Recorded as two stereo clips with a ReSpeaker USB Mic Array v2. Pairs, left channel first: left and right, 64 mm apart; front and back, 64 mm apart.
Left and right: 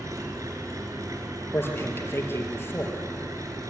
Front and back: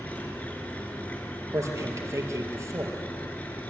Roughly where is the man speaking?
Behind left.